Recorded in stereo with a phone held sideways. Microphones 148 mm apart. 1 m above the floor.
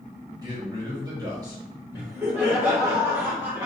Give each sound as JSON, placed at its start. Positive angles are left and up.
{"t": 0.4, "sound": "a man speaking", "side_deg": -25, "distance_m": 1.5}
{"t": 1.9, "sound": "laughter", "side_deg": -15, "distance_m": 1.9}